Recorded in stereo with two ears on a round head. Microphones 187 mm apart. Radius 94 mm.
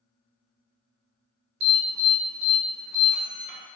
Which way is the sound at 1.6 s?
50° right (ahead or behind).